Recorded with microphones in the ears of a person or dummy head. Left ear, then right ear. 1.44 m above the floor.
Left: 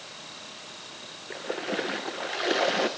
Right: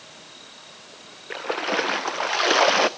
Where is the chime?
No chime in this recording.